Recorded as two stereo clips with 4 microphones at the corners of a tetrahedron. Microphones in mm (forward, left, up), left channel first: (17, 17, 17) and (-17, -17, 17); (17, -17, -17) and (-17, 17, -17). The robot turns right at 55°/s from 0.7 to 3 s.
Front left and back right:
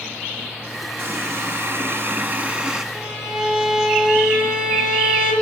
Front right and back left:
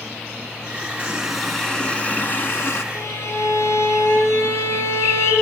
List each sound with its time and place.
1.0 s a running tap: 160° right, 1.3 m; by 2.8 s 60° right, 1.3 m
2.9 s a violin: 45° right, 5.5 m; by 5.3 s 40° right, 5.5 m